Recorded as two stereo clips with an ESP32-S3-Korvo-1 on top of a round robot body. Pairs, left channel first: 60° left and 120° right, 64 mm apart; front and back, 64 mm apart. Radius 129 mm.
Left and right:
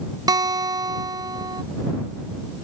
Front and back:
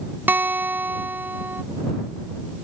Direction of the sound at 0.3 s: 120° right.